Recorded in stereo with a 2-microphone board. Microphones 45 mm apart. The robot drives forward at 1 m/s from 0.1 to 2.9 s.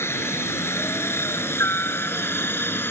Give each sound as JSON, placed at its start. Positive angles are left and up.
{"t": 0.0, "sound": "a helicopter", "side_deg": 65}